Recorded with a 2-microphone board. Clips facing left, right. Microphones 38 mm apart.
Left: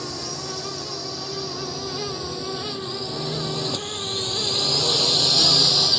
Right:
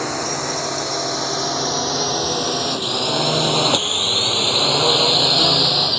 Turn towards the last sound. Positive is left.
turn(degrees=-25)  # may be behind; listen again after turning